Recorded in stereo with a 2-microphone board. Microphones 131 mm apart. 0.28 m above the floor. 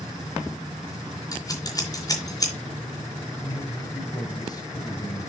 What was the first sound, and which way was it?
Scissors, 30° left (ahead or behind).